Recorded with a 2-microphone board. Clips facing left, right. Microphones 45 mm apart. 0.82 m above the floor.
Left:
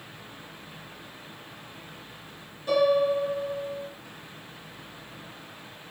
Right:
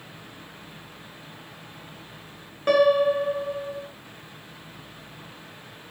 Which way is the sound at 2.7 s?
65° right (ahead or behind).